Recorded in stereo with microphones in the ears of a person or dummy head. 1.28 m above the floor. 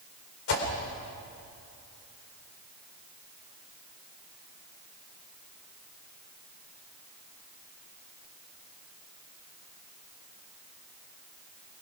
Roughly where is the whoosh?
Left.